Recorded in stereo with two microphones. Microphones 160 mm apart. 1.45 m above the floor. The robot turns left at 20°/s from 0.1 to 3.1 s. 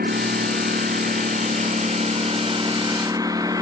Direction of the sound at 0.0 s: 95° right.